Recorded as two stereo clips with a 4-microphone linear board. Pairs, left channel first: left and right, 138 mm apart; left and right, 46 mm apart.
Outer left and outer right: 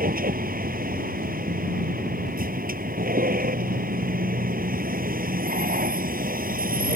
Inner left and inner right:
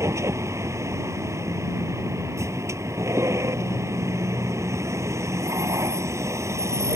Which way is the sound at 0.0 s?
80° right.